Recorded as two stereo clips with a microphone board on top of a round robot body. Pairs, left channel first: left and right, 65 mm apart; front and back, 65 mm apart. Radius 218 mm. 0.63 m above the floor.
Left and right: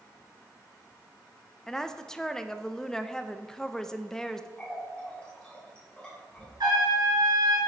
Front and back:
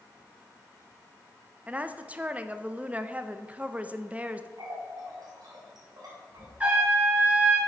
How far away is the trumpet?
About 3.5 m.